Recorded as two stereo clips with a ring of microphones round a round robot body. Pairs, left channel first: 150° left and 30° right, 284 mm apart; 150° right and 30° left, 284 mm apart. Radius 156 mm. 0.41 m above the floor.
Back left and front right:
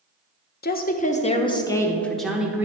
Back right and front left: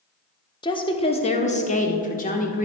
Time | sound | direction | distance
0.6 | a woman speaking | 150° left | 1.2 m